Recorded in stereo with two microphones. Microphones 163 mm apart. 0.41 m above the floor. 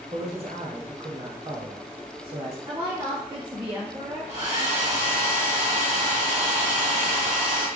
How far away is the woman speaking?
About 1.1 m.